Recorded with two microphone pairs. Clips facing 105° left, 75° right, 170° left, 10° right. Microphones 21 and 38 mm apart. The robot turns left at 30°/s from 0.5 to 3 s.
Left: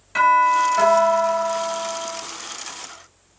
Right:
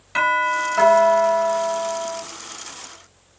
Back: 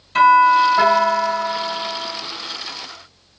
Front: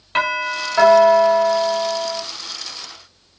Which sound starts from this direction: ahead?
A doorbell, at 0.1 s.